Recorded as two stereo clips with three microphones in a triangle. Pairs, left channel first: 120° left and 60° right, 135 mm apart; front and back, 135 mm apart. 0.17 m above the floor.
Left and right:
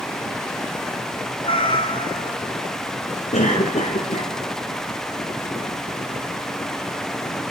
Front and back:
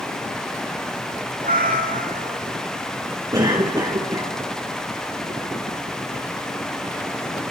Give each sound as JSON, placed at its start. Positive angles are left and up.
{"t": 1.4, "sound": "a cat meowing", "azimuth_deg": 170, "distance_m": 2.5}
{"t": 3.3, "sound": "a cough", "azimuth_deg": 125, "distance_m": 2.5}